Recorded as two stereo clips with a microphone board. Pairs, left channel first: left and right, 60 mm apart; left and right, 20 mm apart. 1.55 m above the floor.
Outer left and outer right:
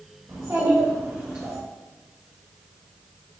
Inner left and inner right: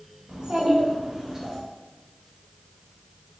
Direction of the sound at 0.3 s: 50° right (ahead or behind).